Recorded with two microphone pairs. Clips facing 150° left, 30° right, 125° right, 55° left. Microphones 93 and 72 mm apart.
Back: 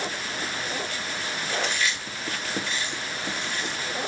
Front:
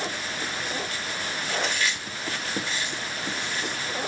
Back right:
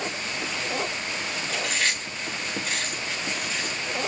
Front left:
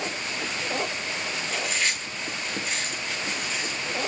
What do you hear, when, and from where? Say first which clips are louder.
1.5 s chewing: even, back right 1 dB; 80° right, 4.5 m